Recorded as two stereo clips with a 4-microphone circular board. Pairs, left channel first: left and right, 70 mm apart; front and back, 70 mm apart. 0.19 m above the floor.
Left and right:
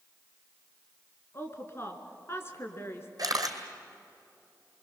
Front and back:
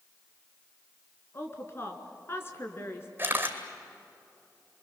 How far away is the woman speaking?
About 2.5 m.